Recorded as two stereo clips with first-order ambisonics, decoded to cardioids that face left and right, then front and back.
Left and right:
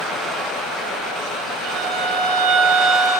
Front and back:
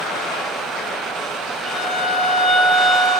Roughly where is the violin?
Right.